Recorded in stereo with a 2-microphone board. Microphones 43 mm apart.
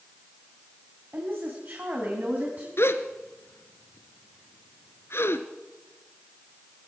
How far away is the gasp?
About 1.4 m.